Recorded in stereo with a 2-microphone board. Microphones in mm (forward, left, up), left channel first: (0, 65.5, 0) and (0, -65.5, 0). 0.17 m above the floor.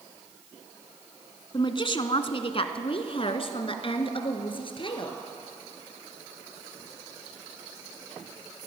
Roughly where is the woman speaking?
Left.